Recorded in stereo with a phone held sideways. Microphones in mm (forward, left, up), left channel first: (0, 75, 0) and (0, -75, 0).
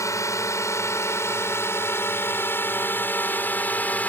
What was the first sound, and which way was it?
A drone, 20° left (ahead or behind).